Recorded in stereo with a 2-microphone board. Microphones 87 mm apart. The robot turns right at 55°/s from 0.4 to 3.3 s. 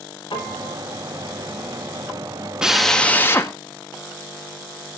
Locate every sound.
0.3 s a piano: 75° left (ahead or behind), 6.5 m; by 0.8 s 55° left (ahead or behind), 6.5 m
2.6 s a drill: 10° right, 1.4 m; by 3.5 s 30° left, 1.4 m